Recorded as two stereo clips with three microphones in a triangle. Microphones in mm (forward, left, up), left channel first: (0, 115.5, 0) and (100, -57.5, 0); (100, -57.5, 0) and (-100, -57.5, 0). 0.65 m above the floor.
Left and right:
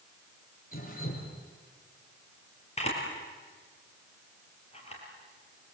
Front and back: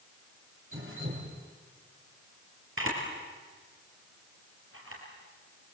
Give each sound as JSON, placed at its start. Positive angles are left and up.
{"t": 0.7, "sound": "dripping", "azimuth_deg": 165, "distance_m": 5.5}
{"t": 2.8, "sound": "a camera shutter", "azimuth_deg": 180, "distance_m": 5.5}